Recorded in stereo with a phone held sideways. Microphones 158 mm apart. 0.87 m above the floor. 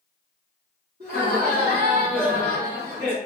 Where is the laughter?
75° right (ahead or behind), 1.4 m.